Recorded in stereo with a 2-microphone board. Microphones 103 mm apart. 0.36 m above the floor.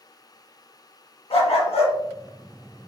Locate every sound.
1.3 s a dog barking: 70° left (ahead or behind), 0.9 m; by 2.9 s 35° left (ahead or behind), 1.5 m